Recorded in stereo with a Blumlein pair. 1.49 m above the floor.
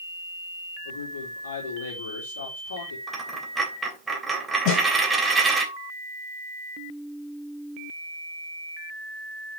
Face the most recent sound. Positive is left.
turn(degrees=40)